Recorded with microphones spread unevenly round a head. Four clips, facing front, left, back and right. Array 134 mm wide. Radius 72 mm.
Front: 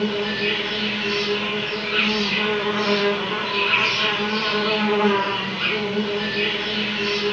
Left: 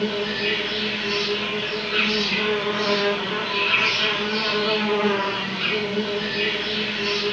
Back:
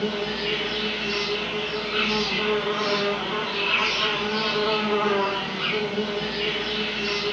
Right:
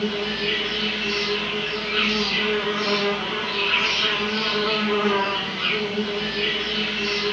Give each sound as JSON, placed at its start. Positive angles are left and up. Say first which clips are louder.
{"t": 0.0, "sound": "an insect", "louder": "left 1 dB, front 3 dB", "azimuth_deg": 25, "distance_m": 3.0}